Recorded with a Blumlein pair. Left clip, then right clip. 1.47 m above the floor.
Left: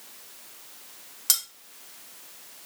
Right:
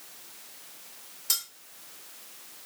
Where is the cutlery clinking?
60° left, 2.5 m.